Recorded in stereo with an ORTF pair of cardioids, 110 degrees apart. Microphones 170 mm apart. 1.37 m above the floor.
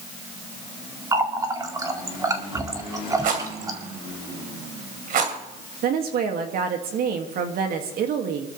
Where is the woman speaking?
60° right, 2.5 m.